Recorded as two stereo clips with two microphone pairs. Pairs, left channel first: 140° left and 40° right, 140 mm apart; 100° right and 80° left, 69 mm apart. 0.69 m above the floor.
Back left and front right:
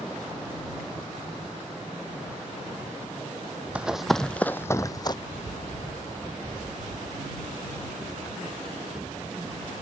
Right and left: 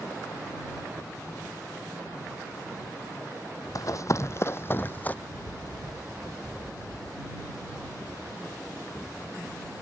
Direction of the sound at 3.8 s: 120° right.